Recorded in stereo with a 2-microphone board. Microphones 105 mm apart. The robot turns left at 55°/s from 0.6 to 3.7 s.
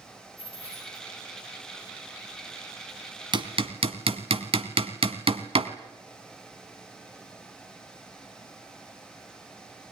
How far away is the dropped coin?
About 8 m.